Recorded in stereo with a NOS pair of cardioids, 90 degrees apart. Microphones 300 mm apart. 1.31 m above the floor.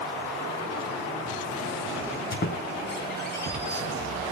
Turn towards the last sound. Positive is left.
turn(degrees=35)